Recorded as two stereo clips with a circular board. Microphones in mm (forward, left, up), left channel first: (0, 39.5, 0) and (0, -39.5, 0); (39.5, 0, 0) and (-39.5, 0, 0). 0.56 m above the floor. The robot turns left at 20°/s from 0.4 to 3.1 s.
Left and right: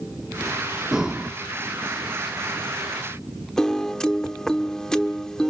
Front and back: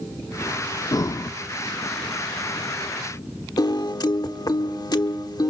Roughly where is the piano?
Ahead.